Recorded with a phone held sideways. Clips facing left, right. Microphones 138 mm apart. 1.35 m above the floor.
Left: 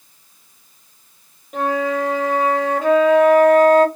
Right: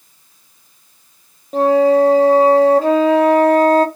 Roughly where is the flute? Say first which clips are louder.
Right 9 dB; right.